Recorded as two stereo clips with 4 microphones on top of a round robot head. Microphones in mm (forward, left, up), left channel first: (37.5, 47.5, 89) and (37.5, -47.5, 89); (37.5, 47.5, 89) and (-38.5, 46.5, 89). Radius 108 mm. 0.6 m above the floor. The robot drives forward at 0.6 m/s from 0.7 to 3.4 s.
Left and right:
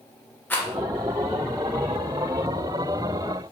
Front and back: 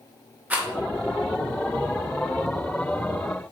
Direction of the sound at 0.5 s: 135° left.